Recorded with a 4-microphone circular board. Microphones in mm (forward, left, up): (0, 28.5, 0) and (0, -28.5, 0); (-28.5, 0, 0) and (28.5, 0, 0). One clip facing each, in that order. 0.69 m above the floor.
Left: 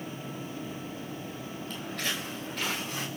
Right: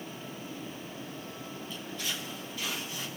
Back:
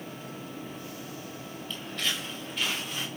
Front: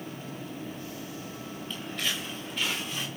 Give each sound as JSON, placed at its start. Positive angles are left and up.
{"t": 1.7, "sound": "footsteps", "azimuth_deg": 80, "distance_m": 5.0}